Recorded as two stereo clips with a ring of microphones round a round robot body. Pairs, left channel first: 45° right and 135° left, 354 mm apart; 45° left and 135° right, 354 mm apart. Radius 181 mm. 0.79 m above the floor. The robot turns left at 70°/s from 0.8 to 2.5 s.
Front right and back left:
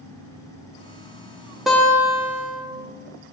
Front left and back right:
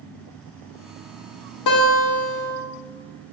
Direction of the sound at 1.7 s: 45° left.